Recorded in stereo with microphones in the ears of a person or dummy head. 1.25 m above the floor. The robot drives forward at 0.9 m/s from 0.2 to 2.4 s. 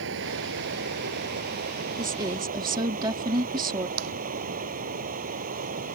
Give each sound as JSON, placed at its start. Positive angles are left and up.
{"t": 0.0, "sound": "running water", "side_deg": -70}
{"t": 2.0, "sound": "a woman speaking", "side_deg": -20}
{"t": 4.0, "sound": "tapping", "side_deg": -65}